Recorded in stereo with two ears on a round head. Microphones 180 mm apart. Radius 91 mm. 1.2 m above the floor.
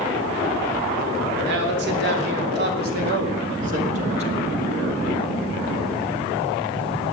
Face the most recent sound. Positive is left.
turn(degrees=-30)  # may be behind; listen again after turning